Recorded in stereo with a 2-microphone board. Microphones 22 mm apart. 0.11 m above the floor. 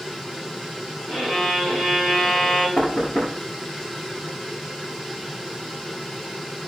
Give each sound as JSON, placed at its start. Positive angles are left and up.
{"t": 1.1, "sound": "a violin", "side_deg": 20, "distance_m": 6.0}
{"t": 2.8, "sound": "knocking", "side_deg": 65, "distance_m": 5.0}